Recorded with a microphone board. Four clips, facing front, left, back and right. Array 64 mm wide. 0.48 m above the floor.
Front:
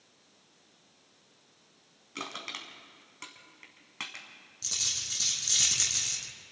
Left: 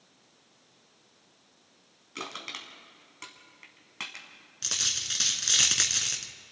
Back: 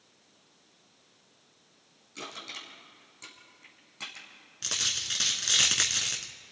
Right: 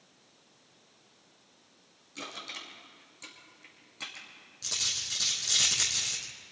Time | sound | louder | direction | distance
2.1 | crushing | left 3 dB, front 2 dB | 40° left | 4 m
4.6 | a dropped coin | left 3 dB, back 7 dB | 150° left | 2 m